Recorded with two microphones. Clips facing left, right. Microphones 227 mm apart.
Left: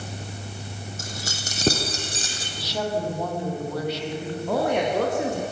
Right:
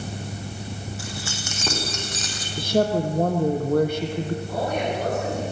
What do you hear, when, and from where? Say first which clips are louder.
1.0 s keys jangling: right 2 dB; 45° left (ahead or behind), 4 m; by 2.5 s 25° left (ahead or behind), 4.5 m
2.6 s a woman speaking: right 6 dB; 50° right (ahead or behind), 3.5 m
4.5 s a woman speaking: left 8 dB; 75° left (ahead or behind), 8.5 m